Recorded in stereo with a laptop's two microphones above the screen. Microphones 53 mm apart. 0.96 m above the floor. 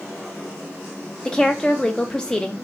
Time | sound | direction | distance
1.2 | a woman speaking | 15° left (ahead or behind) | 0.7 m